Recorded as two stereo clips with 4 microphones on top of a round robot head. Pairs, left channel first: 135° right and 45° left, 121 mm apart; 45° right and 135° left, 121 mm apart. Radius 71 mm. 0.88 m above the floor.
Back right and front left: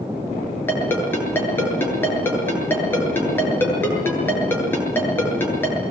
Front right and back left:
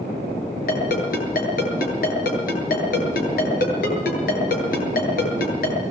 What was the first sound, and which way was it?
A ringtone, 60° right.